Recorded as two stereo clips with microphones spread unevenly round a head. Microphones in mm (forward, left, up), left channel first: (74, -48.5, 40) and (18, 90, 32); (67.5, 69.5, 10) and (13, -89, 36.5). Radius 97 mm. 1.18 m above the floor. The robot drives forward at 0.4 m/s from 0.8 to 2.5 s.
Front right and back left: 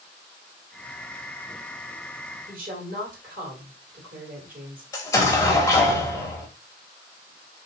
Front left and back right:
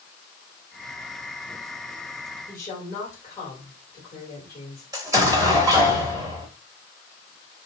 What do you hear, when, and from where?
2.5 s a woman speaking: 145° left, 1.9 m
4.9 s an explosion: 115° right, 0.7 m